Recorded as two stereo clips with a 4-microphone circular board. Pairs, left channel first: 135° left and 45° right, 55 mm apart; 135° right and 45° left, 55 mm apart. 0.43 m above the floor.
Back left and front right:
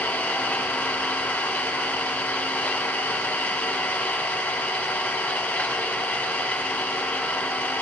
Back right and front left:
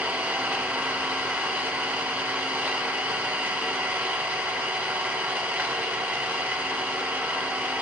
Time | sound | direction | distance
0.0 | an engine running | 90° left | 1.1 m